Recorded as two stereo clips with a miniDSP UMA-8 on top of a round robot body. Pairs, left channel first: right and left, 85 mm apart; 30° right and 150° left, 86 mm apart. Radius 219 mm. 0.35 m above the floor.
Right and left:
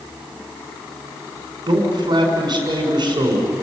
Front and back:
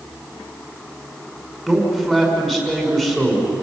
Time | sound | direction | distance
1.7 | a man speaking | 55° left | 6 m